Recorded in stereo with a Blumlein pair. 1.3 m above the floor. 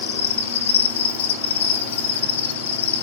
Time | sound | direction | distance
0.0 | an insect | 60° left | 1.3 m